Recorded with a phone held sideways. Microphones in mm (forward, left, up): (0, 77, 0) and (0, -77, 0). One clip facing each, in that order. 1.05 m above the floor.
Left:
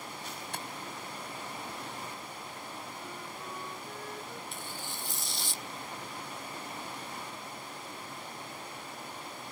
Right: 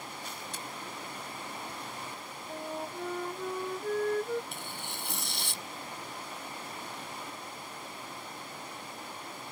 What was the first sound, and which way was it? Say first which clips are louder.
Tapping: left 2 dB; 65° left (ahead or behind).